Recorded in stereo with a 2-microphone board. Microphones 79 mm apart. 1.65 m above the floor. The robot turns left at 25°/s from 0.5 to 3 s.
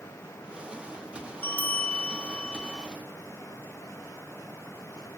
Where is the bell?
25° left (ahead or behind), 0.5 m; by 2.9 s 10° left (ahead or behind), 0.5 m.